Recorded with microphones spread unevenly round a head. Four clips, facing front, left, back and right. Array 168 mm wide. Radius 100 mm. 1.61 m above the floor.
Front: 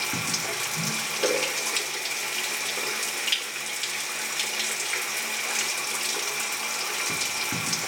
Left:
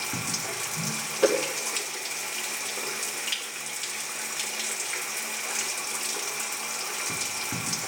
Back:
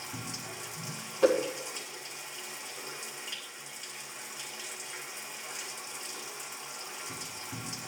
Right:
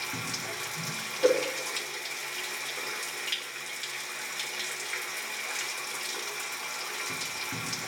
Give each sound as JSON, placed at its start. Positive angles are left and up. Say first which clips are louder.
{"t": 0.0, "sound": "running water", "louder": "left 3 dB, front 10 dB", "azimuth_deg": 25, "distance_m": 0.9}
{"t": 1.2, "sound": "a whoosh", "louder": "left 1 dB, back 2 dB", "azimuth_deg": 90, "distance_m": 2.0}